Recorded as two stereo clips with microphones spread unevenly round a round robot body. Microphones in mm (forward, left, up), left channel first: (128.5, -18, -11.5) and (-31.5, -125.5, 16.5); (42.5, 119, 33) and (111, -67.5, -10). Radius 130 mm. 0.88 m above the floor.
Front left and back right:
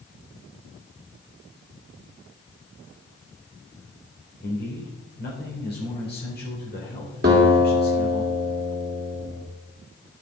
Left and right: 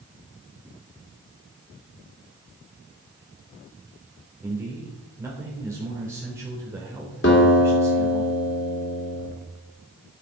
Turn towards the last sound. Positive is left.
turn(degrees=160)